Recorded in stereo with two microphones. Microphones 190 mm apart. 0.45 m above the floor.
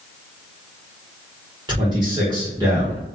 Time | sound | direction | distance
1.7 | a man speaking | 20° right (ahead or behind) | 1.0 m